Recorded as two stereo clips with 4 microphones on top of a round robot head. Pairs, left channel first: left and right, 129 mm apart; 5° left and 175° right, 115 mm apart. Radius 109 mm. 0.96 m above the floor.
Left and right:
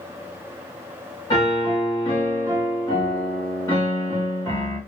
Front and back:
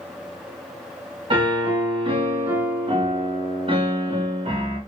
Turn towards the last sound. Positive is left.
turn(degrees=145)